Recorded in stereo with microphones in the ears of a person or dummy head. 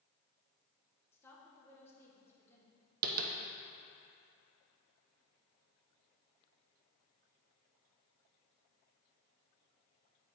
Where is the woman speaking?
15° left (ahead or behind), 1.3 m.